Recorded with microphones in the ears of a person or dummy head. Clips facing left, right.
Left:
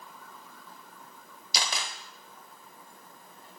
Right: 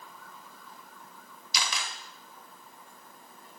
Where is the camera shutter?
35° left (ahead or behind), 0.8 m.